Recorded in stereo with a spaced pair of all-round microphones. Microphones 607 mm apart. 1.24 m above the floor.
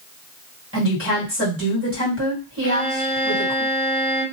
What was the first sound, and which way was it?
A woman speaking, 20° right (ahead or behind).